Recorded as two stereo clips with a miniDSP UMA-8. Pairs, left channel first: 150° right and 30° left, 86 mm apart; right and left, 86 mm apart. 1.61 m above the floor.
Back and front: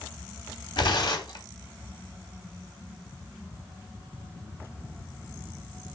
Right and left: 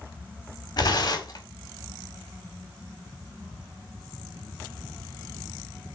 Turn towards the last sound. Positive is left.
turn(degrees=-125)